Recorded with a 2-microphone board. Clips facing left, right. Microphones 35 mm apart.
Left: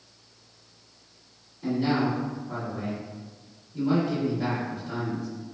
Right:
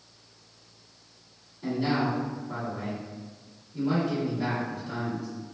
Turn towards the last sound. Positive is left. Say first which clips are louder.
# left 2 dB
turn(degrees=-5)  # may be behind; listen again after turning